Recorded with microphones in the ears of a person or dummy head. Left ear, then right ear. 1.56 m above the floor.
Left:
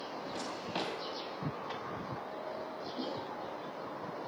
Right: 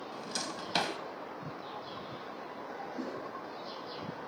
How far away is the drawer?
About 3 m.